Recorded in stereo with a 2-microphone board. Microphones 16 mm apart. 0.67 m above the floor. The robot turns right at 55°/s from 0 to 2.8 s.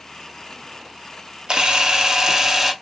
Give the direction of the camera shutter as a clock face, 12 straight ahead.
3 o'clock.